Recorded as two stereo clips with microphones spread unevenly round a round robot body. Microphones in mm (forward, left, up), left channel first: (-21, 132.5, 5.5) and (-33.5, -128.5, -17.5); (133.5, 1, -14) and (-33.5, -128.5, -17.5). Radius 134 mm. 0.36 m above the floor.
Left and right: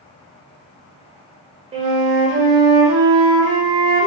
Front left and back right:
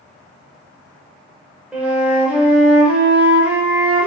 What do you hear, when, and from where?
1.7 s a flute: 65° right, 0.8 m